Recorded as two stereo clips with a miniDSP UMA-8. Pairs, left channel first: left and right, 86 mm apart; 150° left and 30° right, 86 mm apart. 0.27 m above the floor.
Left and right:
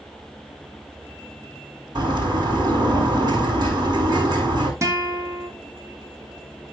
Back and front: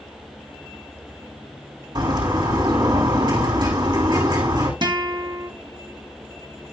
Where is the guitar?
40° right, 2 m.